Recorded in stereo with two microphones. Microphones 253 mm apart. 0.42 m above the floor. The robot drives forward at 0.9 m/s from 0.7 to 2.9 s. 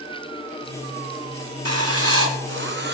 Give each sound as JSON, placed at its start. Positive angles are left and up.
{"t": 1.6, "sound": "writing", "side_deg": -75, "distance_m": 1.4}